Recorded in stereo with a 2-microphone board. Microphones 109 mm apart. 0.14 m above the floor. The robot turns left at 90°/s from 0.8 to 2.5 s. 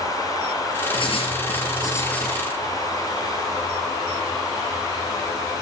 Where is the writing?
125° left, 1.9 m; by 2.4 s 10° right, 1.9 m.